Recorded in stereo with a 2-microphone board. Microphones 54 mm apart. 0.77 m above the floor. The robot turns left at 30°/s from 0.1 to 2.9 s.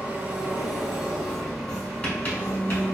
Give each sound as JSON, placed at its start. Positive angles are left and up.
{"t": 0.0, "sound": "an engine running", "azimuth_deg": -145, "distance_m": 1.4}
{"t": 1.7, "sound": "writing", "side_deg": 20, "distance_m": 1.3}